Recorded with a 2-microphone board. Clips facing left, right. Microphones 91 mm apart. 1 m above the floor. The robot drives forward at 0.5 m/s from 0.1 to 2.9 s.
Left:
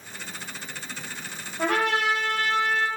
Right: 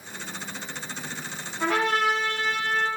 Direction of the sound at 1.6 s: 55° left (ahead or behind).